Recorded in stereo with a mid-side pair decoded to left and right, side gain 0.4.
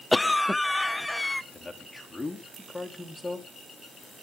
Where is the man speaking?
15° left, 3.5 m.